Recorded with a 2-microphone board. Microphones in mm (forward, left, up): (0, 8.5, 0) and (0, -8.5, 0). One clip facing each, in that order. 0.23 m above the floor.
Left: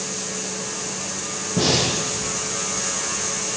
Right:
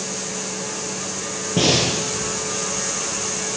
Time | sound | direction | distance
1.6 | breathing | 75° right (ahead or behind) | 6.5 m